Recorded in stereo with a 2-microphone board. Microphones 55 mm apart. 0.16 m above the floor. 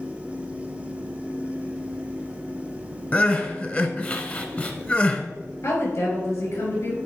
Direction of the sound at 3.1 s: 25° left (ahead or behind).